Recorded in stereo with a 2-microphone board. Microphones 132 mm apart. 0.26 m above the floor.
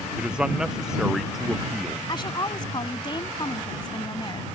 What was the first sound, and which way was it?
A man speaking, 5° right (ahead or behind).